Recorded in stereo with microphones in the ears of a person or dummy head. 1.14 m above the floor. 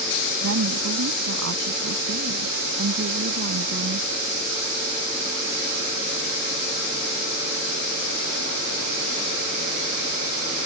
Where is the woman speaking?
75° right (ahead or behind); by 4.1 s 55° right (ahead or behind).